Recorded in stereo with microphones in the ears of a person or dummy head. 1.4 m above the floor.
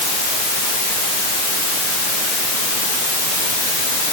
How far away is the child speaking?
I don't hear a child speaking.